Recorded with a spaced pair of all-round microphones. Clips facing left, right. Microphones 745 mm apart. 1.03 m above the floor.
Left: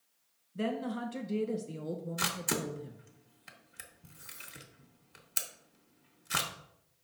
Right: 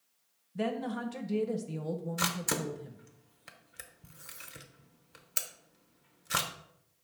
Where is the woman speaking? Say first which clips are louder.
Right 1 dB; 30° right (ahead or behind), 0.8 m.